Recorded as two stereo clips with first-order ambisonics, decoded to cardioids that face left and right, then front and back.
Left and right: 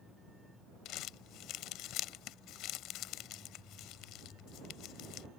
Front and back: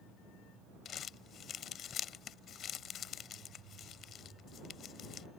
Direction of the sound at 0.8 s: 55° left.